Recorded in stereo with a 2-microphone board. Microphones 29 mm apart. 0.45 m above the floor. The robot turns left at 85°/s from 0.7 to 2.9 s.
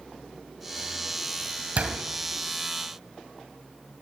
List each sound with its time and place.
1.8 s a door slam: 45° right (ahead or behind), 2 m; by 2.0 s 65° right (ahead or behind), 2 m